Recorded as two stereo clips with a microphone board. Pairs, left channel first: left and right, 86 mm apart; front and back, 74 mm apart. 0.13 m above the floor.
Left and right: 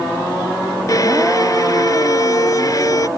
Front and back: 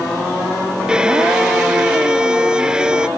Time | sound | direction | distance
0.9 | a violin | 105° left | ?